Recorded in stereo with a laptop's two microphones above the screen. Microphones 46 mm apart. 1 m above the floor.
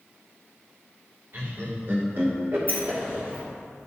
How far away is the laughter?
About 2.0 m.